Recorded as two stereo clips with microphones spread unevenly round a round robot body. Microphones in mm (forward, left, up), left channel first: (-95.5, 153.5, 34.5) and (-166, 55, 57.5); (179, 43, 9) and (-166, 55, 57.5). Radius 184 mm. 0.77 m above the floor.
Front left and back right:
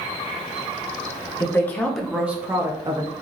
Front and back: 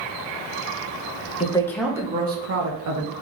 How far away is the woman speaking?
About 1.1 m.